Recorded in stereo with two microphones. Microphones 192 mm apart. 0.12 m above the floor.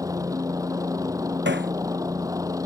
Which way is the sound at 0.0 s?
15° right (ahead or behind).